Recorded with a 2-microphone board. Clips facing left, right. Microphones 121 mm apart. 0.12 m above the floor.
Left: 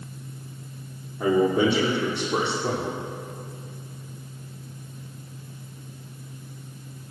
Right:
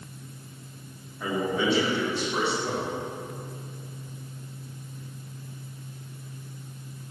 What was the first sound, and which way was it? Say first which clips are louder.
A man speaking: left 7 dB; 60° left (ahead or behind).